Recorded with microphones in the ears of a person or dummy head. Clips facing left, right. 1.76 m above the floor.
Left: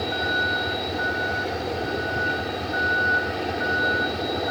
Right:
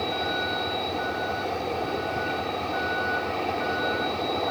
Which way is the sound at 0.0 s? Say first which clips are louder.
Left 1 dB; 15° left (ahead or behind).